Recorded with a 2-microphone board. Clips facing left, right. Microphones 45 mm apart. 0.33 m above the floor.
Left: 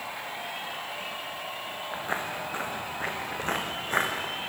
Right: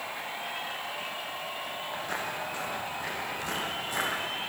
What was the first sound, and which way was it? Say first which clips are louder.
Footsteps: left 3 dB; 25° left (ahead or behind).